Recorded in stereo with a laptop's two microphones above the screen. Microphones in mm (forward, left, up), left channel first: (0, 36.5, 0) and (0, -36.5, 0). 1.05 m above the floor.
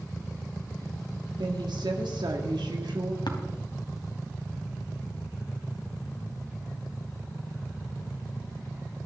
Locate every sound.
1.4 s a woman speaking: 85° right, 1.8 m
3.3 s tapping: 75° left (ahead or behind), 2.5 m